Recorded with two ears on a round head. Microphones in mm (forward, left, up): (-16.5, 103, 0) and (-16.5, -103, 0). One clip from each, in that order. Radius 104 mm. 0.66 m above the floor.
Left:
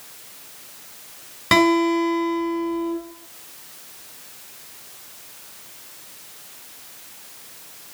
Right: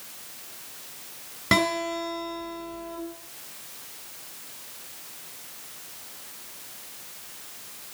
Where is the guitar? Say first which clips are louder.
Left 7 dB; 15° left (ahead or behind), 6 m.